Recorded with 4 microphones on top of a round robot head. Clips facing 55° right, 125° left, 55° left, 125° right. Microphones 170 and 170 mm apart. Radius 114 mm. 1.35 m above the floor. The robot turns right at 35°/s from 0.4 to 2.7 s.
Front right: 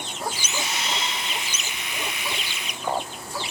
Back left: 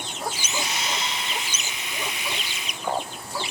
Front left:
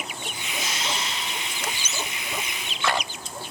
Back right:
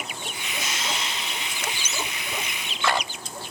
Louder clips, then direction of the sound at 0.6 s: Even, front left 1 dB; 65° left.